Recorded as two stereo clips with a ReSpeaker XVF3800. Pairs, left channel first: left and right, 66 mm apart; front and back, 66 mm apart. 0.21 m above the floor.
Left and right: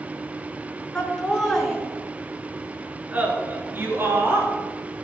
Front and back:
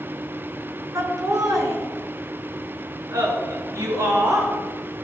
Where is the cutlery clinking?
I don't hear cutlery clinking.